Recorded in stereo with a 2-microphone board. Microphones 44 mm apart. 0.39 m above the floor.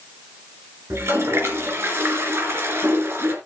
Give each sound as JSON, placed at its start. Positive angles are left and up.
{"t": 0.9, "sound": "a toilet flushing", "side_deg": -65, "distance_m": 2.5}